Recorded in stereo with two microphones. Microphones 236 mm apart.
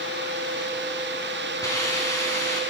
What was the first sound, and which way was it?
A hiss, 15° left (ahead or behind).